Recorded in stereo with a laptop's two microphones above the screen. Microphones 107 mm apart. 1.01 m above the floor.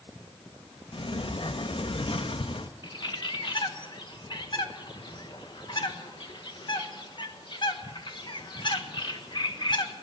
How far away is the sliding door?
About 0.6 m.